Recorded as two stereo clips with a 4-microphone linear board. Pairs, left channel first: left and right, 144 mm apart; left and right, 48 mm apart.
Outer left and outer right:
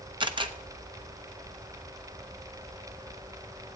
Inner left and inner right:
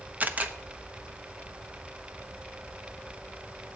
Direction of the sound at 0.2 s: 35° right (ahead or behind).